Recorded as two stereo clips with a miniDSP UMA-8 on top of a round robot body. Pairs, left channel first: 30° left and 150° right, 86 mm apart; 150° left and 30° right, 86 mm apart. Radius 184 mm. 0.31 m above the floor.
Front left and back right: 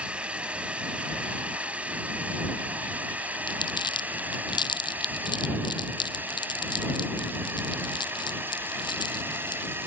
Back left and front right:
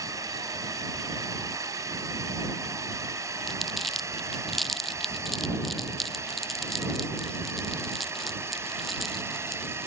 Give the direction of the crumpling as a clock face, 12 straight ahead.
10 o'clock.